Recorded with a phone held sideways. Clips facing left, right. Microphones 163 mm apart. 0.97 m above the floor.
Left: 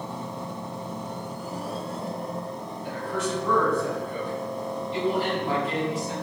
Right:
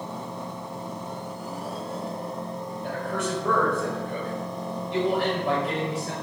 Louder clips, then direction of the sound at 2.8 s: Even; 65° right (ahead or behind).